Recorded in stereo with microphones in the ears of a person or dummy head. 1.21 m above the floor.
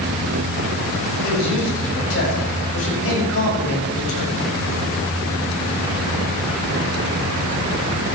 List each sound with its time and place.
1.2 s a man speaking: 80° left, 7.5 m